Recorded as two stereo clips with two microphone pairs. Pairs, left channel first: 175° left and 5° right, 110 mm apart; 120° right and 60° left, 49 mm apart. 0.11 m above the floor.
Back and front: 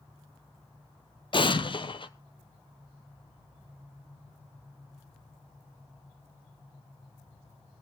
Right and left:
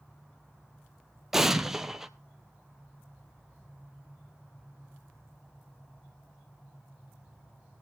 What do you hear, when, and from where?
1.3 s an explosion: 140° left, 0.6 m